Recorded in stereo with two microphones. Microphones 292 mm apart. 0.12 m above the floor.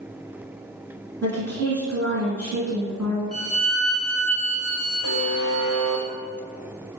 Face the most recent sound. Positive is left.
turn(degrees=-60)  # may be behind; listen again after turning